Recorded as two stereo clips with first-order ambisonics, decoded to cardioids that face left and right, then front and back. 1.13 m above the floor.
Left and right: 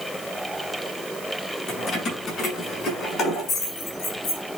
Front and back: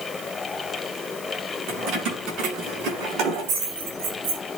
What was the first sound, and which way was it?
Keys jangling, 145° left.